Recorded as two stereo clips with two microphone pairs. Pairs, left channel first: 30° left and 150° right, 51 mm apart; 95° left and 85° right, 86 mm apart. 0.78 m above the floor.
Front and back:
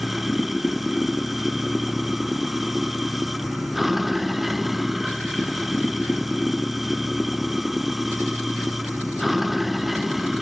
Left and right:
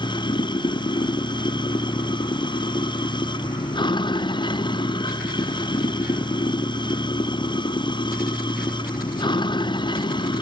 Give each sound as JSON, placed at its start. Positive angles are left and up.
{"t": 0.0, "sound": "running water", "azimuth_deg": 120}